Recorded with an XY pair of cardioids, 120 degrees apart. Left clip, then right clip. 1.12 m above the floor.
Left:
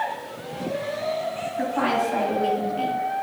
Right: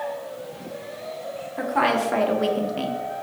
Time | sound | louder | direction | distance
1.6 | a woman speaking | right 2 dB | 65° right | 1.2 m